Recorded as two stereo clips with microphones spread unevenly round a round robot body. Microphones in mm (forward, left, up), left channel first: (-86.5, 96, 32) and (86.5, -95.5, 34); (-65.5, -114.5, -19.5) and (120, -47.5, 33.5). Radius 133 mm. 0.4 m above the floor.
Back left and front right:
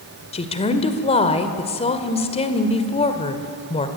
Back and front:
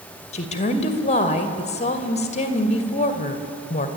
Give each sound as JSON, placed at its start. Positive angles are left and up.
{"t": 0.3, "sound": "a woman speaking", "azimuth_deg": -170, "distance_m": 1.8}